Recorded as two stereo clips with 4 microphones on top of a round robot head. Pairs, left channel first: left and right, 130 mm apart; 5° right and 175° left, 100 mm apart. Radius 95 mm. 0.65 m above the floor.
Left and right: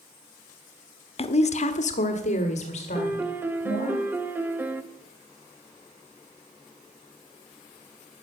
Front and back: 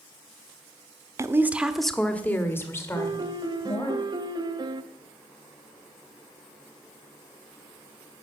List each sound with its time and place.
1.2 s a woman speaking: 120° left, 1.0 m; by 4.0 s 45° left, 3 m
3.0 s a piano: 160° right, 0.8 m